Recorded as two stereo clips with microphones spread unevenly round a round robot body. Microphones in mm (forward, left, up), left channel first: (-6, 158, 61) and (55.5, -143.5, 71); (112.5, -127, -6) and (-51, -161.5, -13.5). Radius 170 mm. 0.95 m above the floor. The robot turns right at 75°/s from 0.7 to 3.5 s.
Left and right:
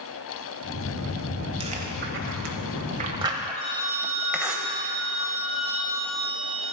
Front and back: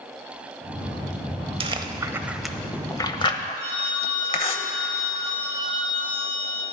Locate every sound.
1.6 s chewing: 140° right, 0.8 m; by 4.6 s 5° left, 0.8 m
3.6 s a phone ringing: 135° left, 4 m